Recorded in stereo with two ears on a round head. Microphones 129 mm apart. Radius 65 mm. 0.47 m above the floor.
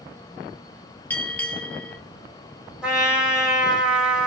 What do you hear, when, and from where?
1.1 s a bell: 15° left (ahead or behind), 1.1 m
2.8 s a trumpet: 10° right (ahead or behind), 1.4 m